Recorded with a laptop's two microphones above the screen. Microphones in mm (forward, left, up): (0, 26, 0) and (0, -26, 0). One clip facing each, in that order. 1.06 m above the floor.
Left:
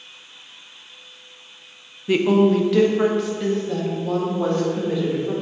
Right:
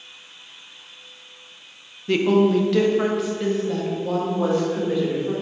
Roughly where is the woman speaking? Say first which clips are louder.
Left 1 dB; centre.